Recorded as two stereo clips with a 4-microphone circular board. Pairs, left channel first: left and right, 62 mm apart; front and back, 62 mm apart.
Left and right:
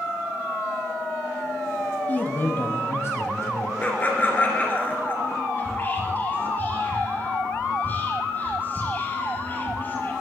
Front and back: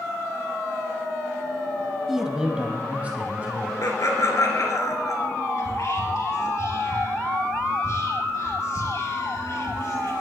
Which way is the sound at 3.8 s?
30° left.